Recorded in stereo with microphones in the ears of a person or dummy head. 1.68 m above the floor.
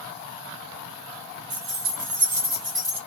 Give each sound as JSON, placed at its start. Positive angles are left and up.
{"t": 1.5, "sound": "keys jangling", "side_deg": -35, "distance_m": 1.2}